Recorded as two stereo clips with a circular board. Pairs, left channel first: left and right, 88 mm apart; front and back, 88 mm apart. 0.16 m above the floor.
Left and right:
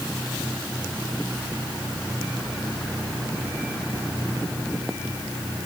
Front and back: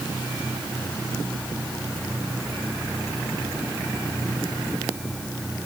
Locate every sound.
Only background noise.